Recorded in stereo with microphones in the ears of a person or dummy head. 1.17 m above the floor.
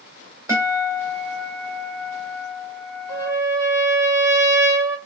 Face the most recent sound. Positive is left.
turn(degrees=-15)  # may be behind; listen again after turning